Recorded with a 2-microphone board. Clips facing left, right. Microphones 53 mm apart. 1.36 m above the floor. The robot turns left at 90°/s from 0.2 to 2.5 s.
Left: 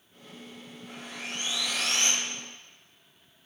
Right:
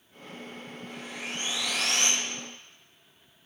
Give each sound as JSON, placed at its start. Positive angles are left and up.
{"t": 0.9, "sound": "sawing", "azimuth_deg": 15, "distance_m": 6.5}